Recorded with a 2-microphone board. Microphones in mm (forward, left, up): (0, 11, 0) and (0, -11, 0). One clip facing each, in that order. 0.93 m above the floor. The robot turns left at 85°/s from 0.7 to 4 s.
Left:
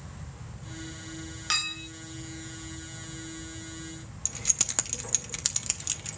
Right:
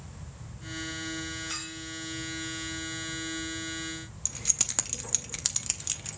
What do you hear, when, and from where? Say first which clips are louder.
1.5 s a clink: left 8 dB; 125° left, 1.4 m; by 1.9 s 95° left, 1.4 m
4.2 s keys jangling: left 1 dB; 5° left (ahead or behind), 0.8 m